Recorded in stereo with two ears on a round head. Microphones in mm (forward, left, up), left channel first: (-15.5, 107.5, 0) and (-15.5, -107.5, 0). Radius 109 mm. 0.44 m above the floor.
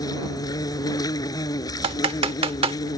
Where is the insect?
15° left (ahead or behind).